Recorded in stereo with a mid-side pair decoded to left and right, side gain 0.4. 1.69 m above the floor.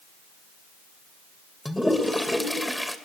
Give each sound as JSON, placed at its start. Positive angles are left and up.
{"t": 1.6, "sound": "a toilet flushing", "azimuth_deg": 10, "distance_m": 2.5}